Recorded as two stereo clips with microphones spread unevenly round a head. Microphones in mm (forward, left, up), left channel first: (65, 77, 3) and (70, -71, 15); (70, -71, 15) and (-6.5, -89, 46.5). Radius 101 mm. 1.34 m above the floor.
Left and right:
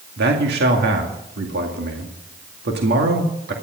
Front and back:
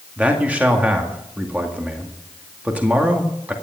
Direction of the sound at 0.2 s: 100° right.